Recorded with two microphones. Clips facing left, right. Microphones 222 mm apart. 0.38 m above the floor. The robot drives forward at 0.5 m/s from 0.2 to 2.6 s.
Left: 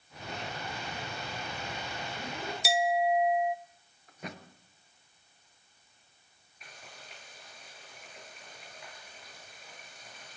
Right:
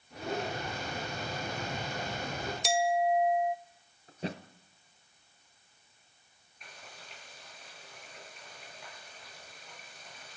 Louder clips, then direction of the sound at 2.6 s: Even; 5° left (ahead or behind).